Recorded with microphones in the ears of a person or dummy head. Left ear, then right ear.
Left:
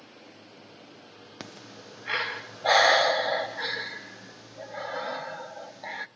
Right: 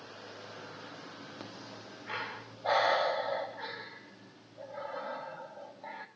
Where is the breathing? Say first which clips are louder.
Left 2 dB; 70° left (ahead or behind), 0.7 m.